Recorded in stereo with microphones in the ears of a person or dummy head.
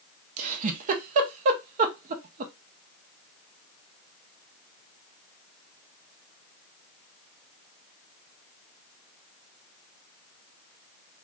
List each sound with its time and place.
0.4 s a giggle: 40° right (ahead or behind), 0.6 m